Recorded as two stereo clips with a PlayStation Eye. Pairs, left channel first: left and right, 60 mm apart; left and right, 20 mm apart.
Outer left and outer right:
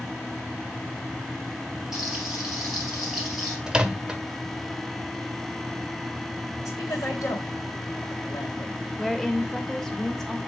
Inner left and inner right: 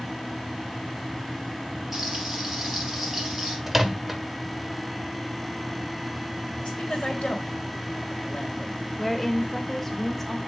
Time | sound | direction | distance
1.9 | frying | 10° right (ahead or behind) | 2.5 m
3.7 | a microwave | 10° right (ahead or behind) | 0.7 m
6.7 | a woman speaking | 65° left (ahead or behind) | 2 m
9.0 | a woman speaking | 5° left (ahead or behind) | 1.0 m